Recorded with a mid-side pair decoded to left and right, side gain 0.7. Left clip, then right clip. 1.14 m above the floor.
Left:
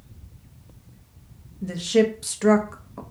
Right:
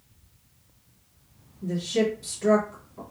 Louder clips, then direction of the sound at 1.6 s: Left 5 dB; 50° left.